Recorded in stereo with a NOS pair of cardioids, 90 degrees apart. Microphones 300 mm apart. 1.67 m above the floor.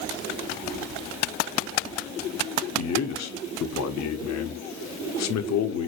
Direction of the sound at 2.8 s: 60° left.